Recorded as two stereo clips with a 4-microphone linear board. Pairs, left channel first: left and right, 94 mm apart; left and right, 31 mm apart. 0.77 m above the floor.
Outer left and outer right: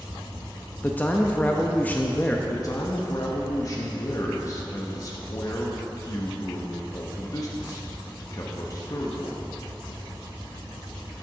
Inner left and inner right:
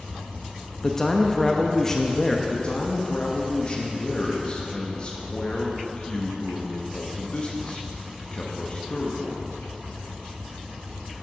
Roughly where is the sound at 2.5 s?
Left.